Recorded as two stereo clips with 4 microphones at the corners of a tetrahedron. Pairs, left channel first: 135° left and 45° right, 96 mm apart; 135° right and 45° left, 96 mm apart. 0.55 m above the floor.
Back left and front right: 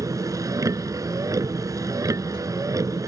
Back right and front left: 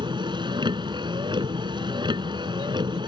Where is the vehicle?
10° left.